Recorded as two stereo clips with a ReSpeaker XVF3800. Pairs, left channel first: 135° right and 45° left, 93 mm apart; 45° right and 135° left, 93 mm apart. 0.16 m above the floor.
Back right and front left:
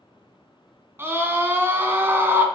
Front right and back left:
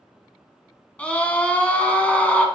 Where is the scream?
15° left, 1.5 m.